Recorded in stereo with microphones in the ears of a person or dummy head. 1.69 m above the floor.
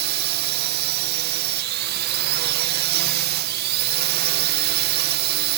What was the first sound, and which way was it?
A drone, 55° right (ahead or behind).